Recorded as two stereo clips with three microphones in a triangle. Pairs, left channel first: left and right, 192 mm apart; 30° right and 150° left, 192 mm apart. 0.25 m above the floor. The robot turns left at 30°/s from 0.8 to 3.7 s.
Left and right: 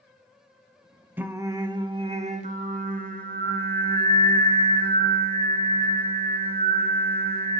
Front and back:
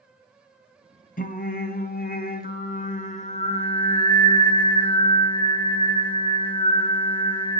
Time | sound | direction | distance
1.2 | singing | 10° right | 0.5 m